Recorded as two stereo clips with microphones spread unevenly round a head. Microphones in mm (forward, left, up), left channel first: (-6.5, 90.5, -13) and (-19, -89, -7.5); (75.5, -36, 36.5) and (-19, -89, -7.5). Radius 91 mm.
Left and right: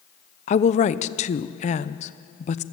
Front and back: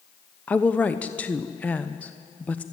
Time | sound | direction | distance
0.5 | a woman speaking | 125° left | 0.7 m